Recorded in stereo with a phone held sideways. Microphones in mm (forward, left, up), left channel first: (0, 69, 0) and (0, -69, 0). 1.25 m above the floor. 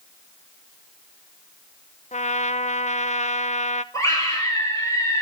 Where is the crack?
I don't hear a crack.